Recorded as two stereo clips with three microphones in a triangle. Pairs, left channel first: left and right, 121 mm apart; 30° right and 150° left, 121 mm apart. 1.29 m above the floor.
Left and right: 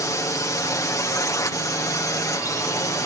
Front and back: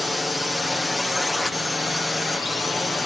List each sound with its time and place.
0.0 s a drone: 60° left